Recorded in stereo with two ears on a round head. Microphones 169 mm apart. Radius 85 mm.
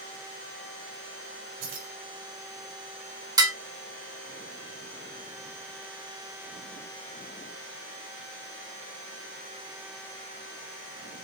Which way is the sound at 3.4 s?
20° right (ahead or behind).